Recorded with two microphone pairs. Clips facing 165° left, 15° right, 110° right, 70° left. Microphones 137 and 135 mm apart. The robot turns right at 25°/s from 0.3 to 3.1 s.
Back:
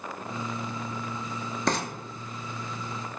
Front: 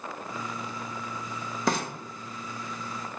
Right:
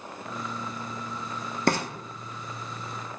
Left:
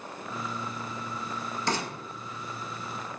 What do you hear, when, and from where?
1.7 s frying: 100° right, 0.9 m